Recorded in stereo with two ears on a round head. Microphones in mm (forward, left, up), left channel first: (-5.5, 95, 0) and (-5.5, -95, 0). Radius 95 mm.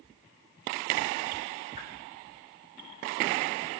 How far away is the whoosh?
About 1.7 m.